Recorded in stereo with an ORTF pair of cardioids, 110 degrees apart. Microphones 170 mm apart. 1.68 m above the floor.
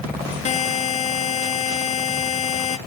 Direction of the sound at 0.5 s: 40° left.